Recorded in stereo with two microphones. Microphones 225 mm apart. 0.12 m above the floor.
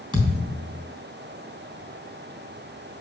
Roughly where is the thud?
Right.